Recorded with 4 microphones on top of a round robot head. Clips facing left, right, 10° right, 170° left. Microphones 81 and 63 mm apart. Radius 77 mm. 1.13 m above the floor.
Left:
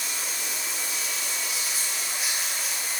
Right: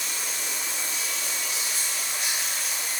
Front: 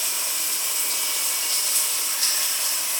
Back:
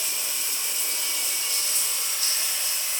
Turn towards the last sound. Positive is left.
turn(degrees=5)